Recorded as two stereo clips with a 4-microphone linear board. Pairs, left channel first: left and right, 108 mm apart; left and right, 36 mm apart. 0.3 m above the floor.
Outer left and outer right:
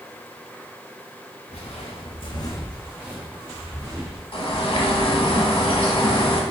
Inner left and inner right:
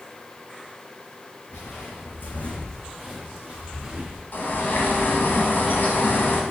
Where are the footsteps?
75° left (ahead or behind), 1.5 m; by 4.2 s 35° right (ahead or behind), 2.5 m.